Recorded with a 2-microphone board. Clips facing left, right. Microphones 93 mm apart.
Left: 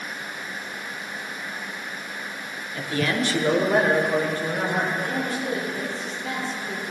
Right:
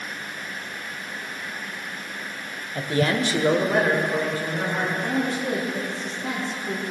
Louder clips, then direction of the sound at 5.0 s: Right 2 dB; 70° right (ahead or behind).